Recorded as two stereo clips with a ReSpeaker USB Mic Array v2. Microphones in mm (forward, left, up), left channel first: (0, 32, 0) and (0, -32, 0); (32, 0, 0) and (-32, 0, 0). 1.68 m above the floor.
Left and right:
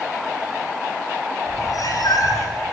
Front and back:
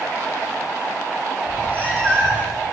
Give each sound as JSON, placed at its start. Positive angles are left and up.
{"t": 1.5, "sound": "a cat meowing", "azimuth_deg": 70, "distance_m": 7.0}